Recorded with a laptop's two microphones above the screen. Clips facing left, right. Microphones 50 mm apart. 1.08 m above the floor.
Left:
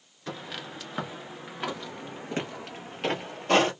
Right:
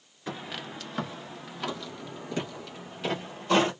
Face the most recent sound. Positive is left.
turn(degrees=50)  # may be behind; listen again after turning